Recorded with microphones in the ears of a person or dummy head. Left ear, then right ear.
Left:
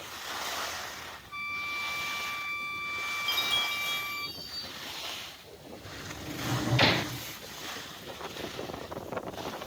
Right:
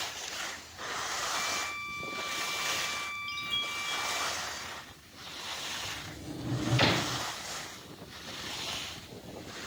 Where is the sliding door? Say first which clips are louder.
Right 1 dB; 10° left (ahead or behind).